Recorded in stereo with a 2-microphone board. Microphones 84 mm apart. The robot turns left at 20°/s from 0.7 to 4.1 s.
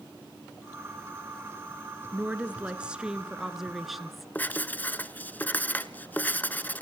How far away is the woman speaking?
About 1.2 m.